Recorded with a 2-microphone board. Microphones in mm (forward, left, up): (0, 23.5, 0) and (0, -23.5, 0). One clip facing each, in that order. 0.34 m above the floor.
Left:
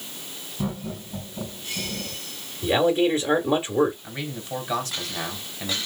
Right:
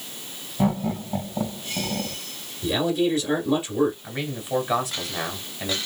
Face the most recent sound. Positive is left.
turn(degrees=-15)  # may be behind; listen again after turning